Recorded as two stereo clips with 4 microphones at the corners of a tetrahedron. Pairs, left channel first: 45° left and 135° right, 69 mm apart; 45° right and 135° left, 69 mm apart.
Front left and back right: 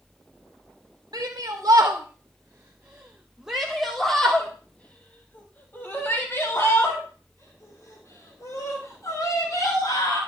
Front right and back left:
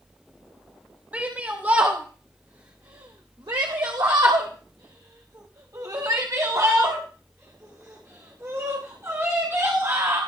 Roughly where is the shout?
Behind.